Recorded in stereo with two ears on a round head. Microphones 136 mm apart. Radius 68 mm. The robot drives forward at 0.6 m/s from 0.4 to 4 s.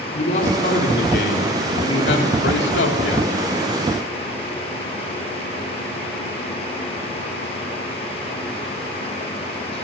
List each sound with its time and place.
0.1 s a man speaking: 60° left (ahead or behind), 3.5 m; by 3.3 s 90° left, 3 m